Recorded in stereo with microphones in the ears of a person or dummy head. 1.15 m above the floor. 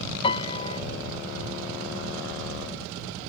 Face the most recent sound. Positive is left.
turn(degrees=30)  # may be behind; listen again after turning